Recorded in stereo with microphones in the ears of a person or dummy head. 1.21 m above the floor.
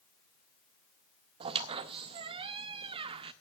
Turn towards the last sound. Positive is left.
turn(degrees=-35)  # may be behind; listen again after turning